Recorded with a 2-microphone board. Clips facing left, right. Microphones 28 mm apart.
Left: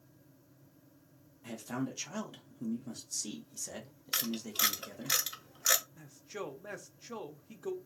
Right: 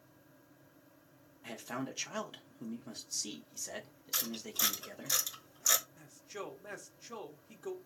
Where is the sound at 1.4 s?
20° right (ahead or behind), 0.5 m.